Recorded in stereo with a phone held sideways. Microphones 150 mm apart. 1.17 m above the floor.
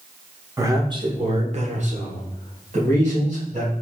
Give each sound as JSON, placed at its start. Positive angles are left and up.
{"t": 0.6, "sound": "a man speaking", "side_deg": -15, "distance_m": 0.8}